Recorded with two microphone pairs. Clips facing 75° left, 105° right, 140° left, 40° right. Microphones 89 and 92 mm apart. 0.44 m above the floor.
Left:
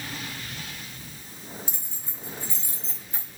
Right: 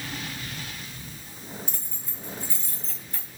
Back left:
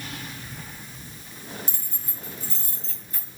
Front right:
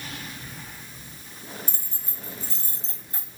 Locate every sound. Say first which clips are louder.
1.7 s keys jangling: right 1 dB, back left 1 dB; 15° left, 1.4 m